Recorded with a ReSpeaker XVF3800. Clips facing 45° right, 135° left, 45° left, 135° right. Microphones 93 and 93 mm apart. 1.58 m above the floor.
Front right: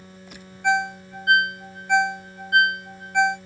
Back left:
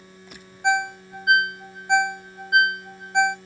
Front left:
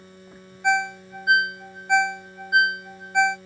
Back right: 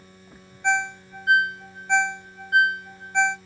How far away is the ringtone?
About 0.5 m.